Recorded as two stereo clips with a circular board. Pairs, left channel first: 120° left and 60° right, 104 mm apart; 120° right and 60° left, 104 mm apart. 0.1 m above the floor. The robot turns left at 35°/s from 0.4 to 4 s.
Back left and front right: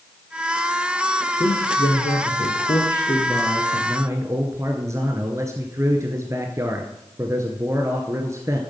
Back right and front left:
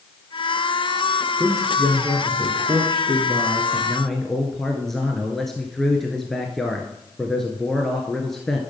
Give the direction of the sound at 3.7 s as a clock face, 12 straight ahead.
1 o'clock.